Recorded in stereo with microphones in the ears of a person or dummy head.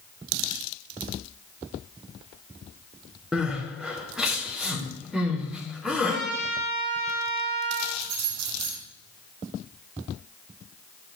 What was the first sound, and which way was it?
Crying, 10° right (ahead or behind).